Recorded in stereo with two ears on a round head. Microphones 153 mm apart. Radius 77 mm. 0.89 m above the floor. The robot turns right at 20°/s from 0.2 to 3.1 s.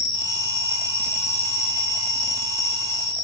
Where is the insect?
Straight ahead, 2.5 m; by 3.2 s 55° left, 2.5 m.